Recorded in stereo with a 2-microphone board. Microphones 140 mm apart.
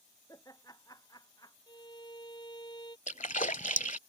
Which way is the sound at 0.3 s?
25° left (ahead or behind).